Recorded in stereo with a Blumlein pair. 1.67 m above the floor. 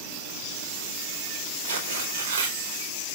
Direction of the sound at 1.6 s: 60° right.